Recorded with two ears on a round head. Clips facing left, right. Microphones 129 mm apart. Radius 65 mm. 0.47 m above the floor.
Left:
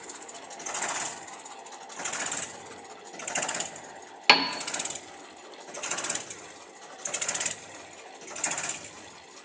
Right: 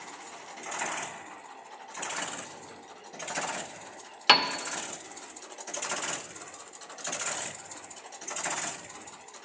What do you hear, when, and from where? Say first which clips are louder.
4.3 s a piano: even; 10° left (ahead or behind), 0.8 m